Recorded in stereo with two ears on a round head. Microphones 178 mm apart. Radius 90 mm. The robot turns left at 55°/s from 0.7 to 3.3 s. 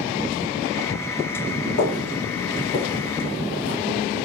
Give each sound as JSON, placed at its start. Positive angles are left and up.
{"t": 1.8, "sound": "footsteps", "side_deg": 70, "distance_m": 1.5}